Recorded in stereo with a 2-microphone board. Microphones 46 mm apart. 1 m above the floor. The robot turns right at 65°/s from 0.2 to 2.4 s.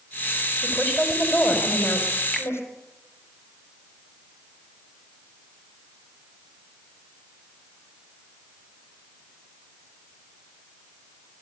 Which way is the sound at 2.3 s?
5° left (ahead or behind).